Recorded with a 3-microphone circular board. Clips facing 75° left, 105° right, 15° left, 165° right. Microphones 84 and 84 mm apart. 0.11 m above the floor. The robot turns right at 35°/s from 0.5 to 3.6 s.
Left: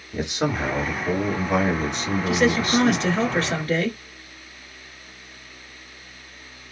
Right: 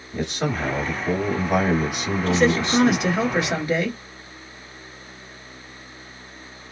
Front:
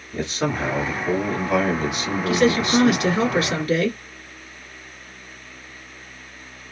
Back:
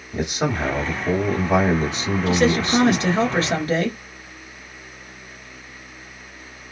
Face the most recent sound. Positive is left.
turn(degrees=-160)